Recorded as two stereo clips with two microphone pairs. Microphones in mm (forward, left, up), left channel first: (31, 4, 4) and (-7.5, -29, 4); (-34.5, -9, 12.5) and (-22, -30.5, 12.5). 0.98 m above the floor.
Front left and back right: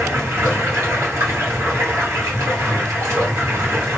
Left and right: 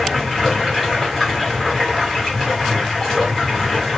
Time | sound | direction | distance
0.0 | running water | 160° right | 1.2 m